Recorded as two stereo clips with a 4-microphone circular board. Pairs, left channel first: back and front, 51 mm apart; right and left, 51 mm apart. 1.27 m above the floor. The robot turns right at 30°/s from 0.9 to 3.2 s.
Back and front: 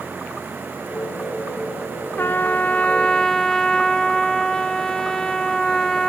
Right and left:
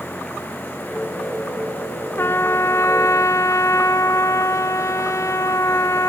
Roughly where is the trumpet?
Behind right.